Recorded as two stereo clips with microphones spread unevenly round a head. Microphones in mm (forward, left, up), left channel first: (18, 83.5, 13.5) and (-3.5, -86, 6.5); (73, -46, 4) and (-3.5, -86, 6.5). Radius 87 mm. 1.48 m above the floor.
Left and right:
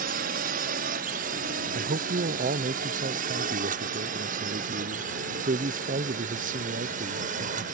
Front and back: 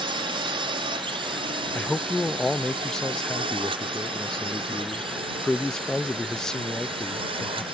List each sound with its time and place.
0.0 s a drone: 140° right; by 7.7 s 145° right
1.8 s a man speaking: 55° right